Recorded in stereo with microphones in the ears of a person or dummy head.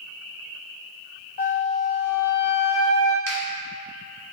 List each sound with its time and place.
1.4 s a flute: 45° left (ahead or behind), 0.5 m
3.3 s a finger snap: 80° right, 1.1 m